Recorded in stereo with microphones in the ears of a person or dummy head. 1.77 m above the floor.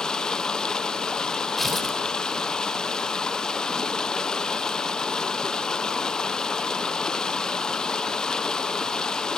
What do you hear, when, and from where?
0.0 s running water: 5° left (ahead or behind), 0.9 m
1.6 s tearing paper: centre (ahead or behind), 3.5 m